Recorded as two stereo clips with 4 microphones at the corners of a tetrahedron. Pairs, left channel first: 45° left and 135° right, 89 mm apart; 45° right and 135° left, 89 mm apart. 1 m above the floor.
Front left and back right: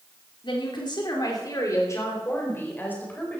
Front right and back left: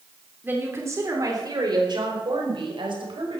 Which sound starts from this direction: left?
A woman speaking, at 0.4 s.